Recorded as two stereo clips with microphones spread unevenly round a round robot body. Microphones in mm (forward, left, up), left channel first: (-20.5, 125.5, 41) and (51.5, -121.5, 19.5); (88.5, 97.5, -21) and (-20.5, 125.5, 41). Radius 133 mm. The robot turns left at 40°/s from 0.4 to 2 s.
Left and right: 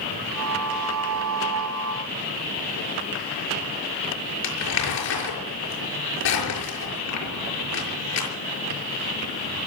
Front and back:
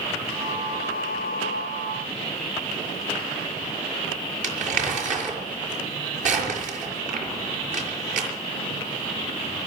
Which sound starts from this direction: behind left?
Crumpling, at 4.4 s.